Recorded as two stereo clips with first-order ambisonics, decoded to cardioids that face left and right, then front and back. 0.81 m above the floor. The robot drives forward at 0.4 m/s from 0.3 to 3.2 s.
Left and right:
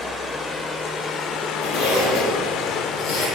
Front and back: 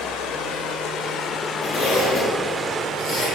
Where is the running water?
30° left, 0.9 m; by 3.4 s 135° left, 0.7 m.